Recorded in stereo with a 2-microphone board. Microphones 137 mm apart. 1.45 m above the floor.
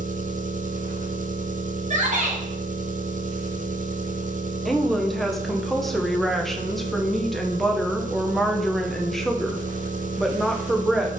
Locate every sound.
0.0 s an engine running: 75° right (ahead or behind), 0.8 m
1.9 s a shout: 60° right (ahead or behind), 2 m
4.7 s a woman speaking: centre (ahead or behind), 1.1 m